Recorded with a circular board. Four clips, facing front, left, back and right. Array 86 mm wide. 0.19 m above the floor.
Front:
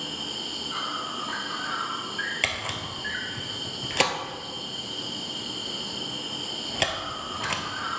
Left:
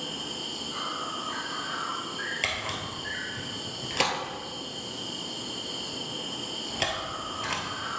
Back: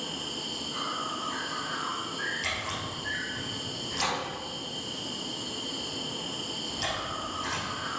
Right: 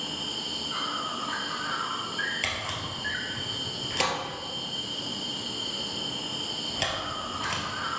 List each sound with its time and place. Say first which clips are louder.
0.0 s an insect: even, front 1 dB; 35° right, 3 m
2.4 s a camera shutter: even, front 2 dB; 10° left, 1.4 m